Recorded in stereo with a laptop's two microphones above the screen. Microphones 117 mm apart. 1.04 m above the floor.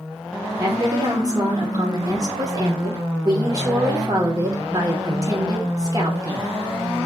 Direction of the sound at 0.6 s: 35° right (ahead or behind).